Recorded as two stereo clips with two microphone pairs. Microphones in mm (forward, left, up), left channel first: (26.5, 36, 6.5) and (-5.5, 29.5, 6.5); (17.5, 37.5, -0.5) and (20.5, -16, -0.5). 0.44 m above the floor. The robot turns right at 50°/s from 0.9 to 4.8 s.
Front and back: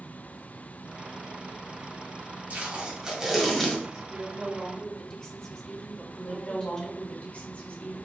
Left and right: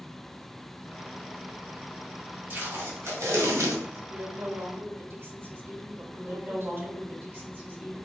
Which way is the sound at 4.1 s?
95° right.